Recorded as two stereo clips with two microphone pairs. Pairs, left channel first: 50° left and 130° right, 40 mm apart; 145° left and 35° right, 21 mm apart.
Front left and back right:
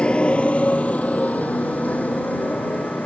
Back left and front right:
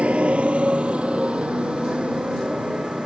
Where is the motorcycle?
15° right; by 3.1 s 5° left.